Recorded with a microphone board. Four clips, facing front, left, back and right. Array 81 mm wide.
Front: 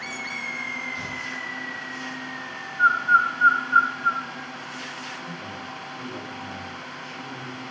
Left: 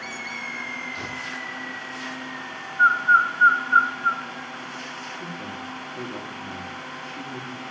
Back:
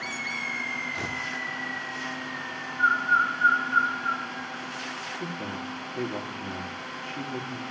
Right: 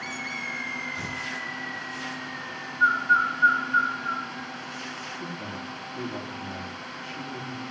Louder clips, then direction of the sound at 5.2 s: Left 1 dB, back 2 dB; 160° left.